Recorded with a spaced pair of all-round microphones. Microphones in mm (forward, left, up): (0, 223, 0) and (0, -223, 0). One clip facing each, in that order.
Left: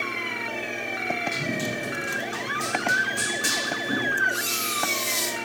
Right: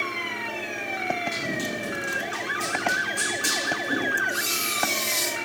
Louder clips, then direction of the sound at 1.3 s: Left 1 dB; 45° left (ahead or behind).